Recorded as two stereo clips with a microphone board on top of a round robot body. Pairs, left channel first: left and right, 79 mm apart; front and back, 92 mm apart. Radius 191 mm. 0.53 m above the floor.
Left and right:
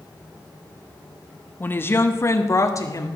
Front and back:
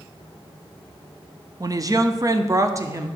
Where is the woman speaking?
145° left, 1.5 m; by 3.1 s 130° left, 2 m.